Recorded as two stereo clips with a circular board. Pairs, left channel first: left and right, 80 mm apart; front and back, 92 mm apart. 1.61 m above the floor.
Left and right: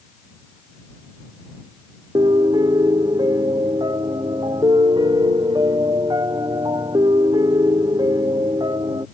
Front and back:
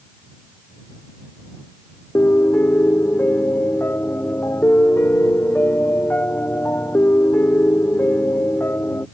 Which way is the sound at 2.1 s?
65° right.